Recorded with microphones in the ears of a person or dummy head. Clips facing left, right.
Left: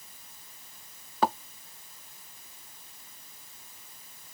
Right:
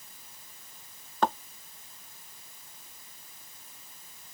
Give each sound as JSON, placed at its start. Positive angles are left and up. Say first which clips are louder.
{"t": 1.2, "sound": "a thud", "louder": "left 1 dB", "side_deg": 15}